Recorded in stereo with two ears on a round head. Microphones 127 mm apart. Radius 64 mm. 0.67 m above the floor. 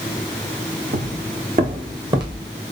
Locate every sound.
0.9 s footsteps: 65° right (ahead or behind), 3 m; by 2.5 s 30° right (ahead or behind), 3 m